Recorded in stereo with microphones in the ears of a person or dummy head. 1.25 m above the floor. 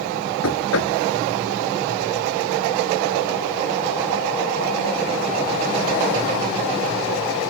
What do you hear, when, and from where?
0.4 s knocking: 75° left (ahead or behind)